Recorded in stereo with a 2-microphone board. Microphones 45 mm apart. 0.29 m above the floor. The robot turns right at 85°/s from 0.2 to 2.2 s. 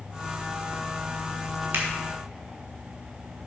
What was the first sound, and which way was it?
A finger snap, 65° right (ahead or behind).